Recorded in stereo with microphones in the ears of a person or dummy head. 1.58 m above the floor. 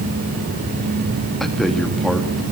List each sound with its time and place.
1.4 s a man speaking: centre (ahead or behind), 2.5 m